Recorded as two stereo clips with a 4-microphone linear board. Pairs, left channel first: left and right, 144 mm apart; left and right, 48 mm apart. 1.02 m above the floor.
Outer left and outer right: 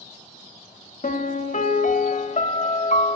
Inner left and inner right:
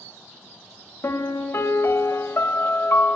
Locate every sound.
1.0 s a piano: 60° left (ahead or behind), 0.7 m